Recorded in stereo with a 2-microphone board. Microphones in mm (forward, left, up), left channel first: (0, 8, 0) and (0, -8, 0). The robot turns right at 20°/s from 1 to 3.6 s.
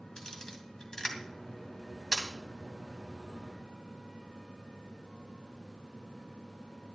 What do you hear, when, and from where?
0.2 s a camera shutter: 40° left (ahead or behind), 2.5 m; by 2.3 s 50° left (ahead or behind), 2.5 m